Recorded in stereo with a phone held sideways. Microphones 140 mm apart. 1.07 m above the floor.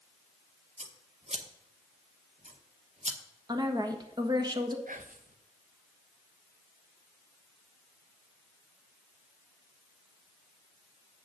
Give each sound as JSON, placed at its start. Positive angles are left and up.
{"t": 0.8, "sound": "scissors", "side_deg": -55, "distance_m": 0.9}
{"t": 3.5, "sound": "a woman speaking", "side_deg": -30, "distance_m": 1.4}
{"t": 4.9, "sound": "whispering", "side_deg": -70, "distance_m": 1.0}